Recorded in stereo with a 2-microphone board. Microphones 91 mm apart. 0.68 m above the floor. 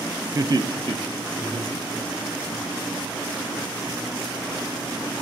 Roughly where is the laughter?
Right.